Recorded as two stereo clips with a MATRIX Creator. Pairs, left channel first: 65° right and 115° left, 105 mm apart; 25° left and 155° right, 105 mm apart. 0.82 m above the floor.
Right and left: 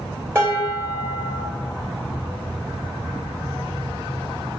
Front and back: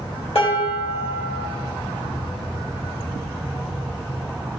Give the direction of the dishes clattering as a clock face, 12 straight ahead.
10 o'clock.